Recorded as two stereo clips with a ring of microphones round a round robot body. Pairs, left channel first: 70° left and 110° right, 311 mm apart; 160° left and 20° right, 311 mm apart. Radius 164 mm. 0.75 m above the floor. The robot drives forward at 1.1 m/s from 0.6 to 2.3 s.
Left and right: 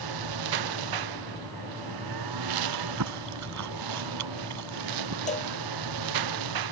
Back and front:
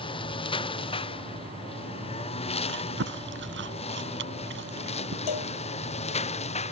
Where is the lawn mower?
130° right.